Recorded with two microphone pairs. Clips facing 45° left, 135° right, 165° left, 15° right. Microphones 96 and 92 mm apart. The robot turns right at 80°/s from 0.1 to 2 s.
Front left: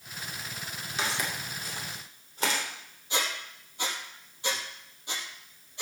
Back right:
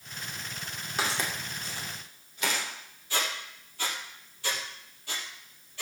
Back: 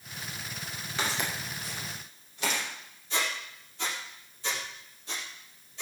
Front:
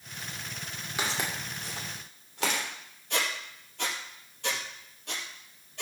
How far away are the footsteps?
About 6.5 m.